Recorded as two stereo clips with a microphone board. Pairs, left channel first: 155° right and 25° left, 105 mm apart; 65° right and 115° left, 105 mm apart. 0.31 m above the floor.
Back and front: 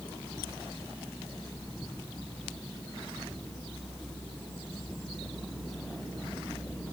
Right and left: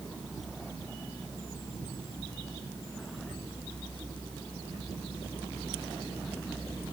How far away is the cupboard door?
I don't hear a cupboard door.